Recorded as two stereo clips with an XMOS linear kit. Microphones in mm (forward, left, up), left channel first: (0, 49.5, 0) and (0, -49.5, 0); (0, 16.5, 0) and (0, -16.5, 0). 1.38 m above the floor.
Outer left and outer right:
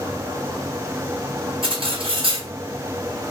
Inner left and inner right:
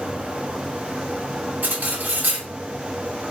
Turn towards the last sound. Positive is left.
turn(degrees=-65)  # may be behind; listen again after turning